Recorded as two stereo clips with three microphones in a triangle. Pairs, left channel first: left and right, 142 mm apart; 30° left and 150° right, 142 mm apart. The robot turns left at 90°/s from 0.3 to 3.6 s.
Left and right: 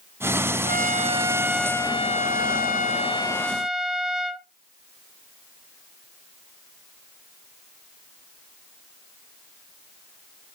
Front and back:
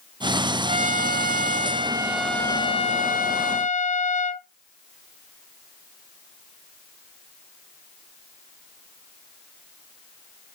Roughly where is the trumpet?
Right.